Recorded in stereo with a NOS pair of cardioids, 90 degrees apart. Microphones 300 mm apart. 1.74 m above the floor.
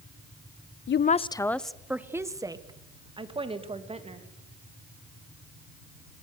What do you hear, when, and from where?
0.9 s a woman speaking: 45° left, 0.6 m; by 4.3 s 20° right, 3.5 m